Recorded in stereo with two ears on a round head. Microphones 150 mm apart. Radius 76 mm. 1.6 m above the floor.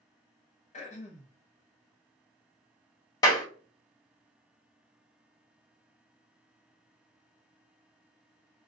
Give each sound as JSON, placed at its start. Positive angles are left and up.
{"t": 0.7, "sound": "throat clearing", "side_deg": 45, "distance_m": 0.8}
{"t": 3.2, "sound": "a clap", "side_deg": 25, "distance_m": 0.9}